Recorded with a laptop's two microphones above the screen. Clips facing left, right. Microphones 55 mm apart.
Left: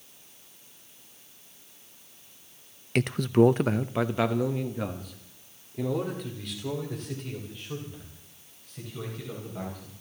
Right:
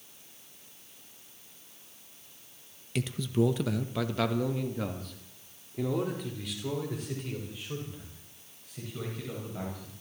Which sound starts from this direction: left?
A man speaking, at 3.0 s.